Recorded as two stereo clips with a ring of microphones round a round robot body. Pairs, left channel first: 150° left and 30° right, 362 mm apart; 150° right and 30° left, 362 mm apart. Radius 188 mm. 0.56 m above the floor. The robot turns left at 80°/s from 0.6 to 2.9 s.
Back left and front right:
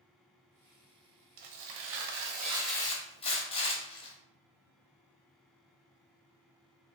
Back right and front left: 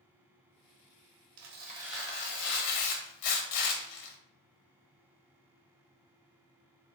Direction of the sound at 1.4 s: 15° right.